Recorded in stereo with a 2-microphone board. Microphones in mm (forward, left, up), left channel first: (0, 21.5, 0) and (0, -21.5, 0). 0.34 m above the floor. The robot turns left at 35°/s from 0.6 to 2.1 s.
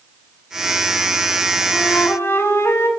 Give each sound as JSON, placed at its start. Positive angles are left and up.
{"t": 1.7, "sound": "a flute", "side_deg": 85, "distance_m": 0.6}